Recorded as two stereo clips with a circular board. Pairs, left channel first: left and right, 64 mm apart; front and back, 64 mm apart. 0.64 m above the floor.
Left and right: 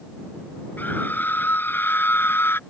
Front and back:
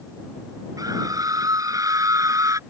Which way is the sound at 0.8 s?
150° left.